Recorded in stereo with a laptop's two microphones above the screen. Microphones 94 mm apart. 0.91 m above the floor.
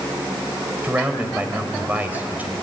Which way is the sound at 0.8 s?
15° right (ahead or behind).